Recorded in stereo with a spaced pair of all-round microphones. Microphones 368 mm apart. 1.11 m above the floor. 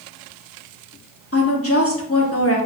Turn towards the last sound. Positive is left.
turn(degrees=40)  # may be behind; listen again after turning